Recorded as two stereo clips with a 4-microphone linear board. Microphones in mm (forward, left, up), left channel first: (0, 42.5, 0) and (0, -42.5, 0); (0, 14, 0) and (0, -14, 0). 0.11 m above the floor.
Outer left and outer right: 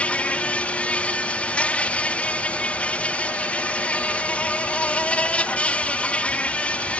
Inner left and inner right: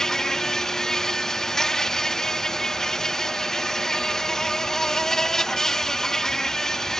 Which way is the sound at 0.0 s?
15° left (ahead or behind).